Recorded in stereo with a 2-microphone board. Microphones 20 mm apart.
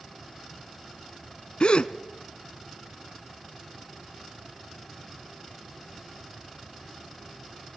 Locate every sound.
1.6 s a gasp: 55° left (ahead or behind), 0.9 m